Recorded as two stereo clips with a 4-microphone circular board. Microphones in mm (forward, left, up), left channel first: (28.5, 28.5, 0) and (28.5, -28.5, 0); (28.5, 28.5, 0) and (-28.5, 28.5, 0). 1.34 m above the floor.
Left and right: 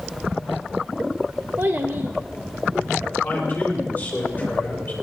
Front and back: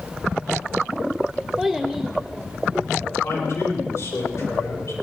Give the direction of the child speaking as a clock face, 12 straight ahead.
3 o'clock.